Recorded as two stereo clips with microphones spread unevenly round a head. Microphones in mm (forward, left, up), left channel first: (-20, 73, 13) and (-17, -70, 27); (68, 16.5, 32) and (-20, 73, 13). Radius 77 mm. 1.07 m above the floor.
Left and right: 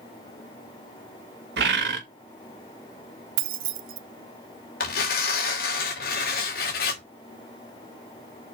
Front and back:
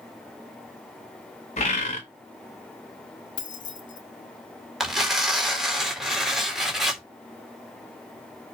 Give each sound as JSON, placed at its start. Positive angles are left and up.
{"t": 1.6, "sound": "a bird", "azimuth_deg": -75, "distance_m": 1.5}
{"t": 3.4, "sound": "keys jangling", "azimuth_deg": -85, "distance_m": 0.6}
{"t": 4.8, "sound": "tearing paper", "azimuth_deg": 60, "distance_m": 2.0}